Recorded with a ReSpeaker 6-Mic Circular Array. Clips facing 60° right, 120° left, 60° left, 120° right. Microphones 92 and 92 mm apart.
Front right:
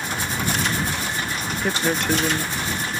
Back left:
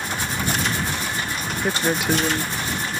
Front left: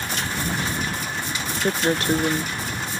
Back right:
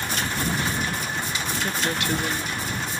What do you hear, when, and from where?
1.6 s a woman speaking: 40° left